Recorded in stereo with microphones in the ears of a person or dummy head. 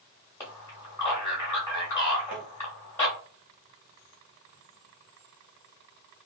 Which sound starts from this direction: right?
Tapping, at 2.3 s.